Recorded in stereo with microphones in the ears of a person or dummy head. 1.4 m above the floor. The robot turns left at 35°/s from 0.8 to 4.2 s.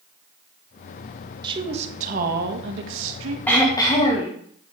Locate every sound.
1.4 s a woman speaking: 25° right, 1.7 m; by 3.4 s 90° right, 1.7 m
3.5 s throat clearing: 10° left (ahead or behind), 1.9 m; by 4.3 s 35° left (ahead or behind), 1.9 m